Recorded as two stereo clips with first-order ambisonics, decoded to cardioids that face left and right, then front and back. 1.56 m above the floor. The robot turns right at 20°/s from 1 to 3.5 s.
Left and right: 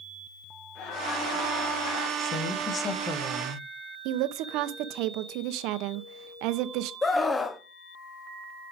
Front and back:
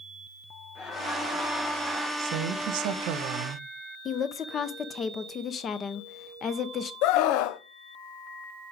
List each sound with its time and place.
0.8 s laughter: 45° left, 4 m; by 2.1 s 65° left, 4 m
2.2 s a woman speaking: 140° left, 1.5 m; by 3.7 s 165° left, 1.5 m
4.0 s a woman speaking: 65° right, 0.7 m
7.0 s a scream: 15° left, 0.6 m